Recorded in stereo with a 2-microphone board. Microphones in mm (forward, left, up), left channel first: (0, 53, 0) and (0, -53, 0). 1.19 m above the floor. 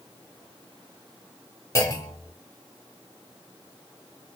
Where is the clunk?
30° left (ahead or behind), 1.1 m.